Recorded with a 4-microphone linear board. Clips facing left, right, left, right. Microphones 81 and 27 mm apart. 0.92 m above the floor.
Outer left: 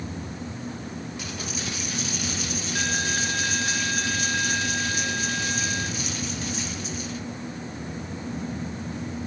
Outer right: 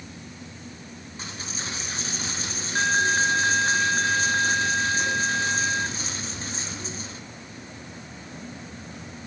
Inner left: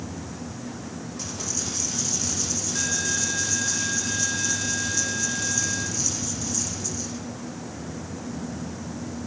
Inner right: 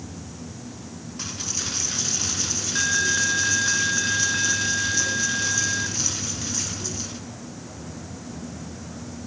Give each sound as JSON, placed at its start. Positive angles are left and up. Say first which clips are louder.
{"t": 1.2, "sound": "a dropped coin", "louder": "outer left 3 dB, inner right 3 dB", "side_deg": -30, "distance_m": 3.0}